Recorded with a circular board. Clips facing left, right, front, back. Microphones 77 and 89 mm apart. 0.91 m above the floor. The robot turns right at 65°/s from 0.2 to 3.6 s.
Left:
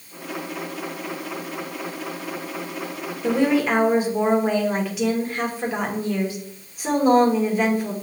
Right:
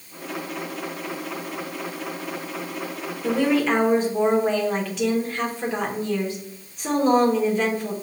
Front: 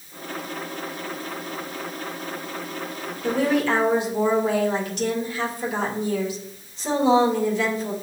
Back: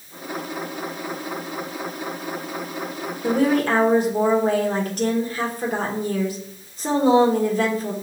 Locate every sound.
3.2 s a woman speaking: 150° left, 1.1 m; by 7.9 s 170° left, 1.1 m